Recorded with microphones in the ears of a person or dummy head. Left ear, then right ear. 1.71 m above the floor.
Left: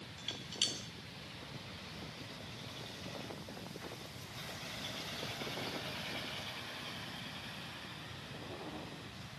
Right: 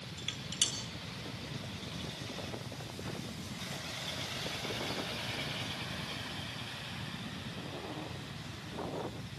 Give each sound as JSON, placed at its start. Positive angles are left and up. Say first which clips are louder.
{"t": 0.2, "sound": "dishes clattering", "louder": "right 2 dB", "side_deg": -10, "distance_m": 1.9}